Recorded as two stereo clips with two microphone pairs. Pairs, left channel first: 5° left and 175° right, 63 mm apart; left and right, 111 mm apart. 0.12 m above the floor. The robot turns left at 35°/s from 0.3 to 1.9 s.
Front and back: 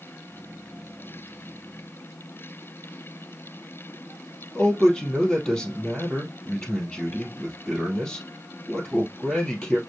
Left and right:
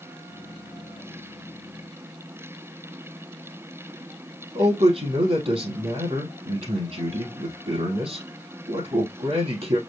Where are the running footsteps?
I don't hear running footsteps.